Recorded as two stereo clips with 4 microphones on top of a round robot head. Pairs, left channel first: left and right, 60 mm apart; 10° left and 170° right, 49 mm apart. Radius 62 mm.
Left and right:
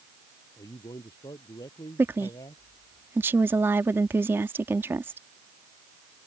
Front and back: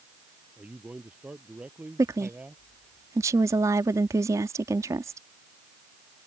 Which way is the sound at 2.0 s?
145° right.